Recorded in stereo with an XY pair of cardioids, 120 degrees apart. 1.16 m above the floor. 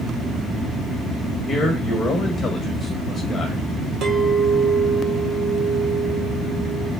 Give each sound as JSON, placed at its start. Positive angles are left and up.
{"t": 1.5, "sound": "a man speaking", "azimuth_deg": 40, "distance_m": 1.2}
{"t": 4.0, "sound": "a clink", "azimuth_deg": -50, "distance_m": 1.7}